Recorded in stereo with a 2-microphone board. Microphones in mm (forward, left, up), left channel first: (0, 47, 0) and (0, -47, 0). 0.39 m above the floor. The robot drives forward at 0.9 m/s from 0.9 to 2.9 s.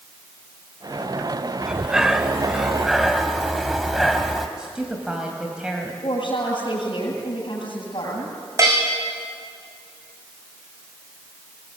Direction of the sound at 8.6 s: 30° right (ahead or behind).